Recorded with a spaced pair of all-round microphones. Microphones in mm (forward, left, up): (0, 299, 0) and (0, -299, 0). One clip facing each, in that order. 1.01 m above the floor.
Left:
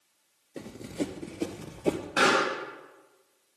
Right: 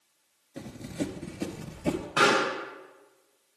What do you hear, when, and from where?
0.6 s running footsteps: 20° right (ahead or behind), 1.0 m; by 2.1 s 25° right (ahead or behind), 1.4 m
2.2 s a pop: 25° right (ahead or behind), 5 m